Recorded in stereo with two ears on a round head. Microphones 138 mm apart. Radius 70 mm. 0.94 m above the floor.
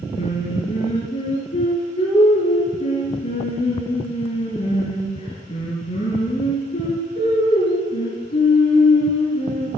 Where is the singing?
35° left (ahead or behind), 5.5 m.